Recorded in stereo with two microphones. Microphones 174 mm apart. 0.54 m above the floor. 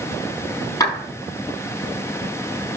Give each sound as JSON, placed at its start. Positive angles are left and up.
{"t": 0.8, "sound": "a clap", "side_deg": 20, "distance_m": 7.0}